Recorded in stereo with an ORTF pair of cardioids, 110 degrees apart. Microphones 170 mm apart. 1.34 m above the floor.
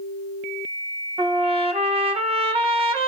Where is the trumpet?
35° right, 1.2 m.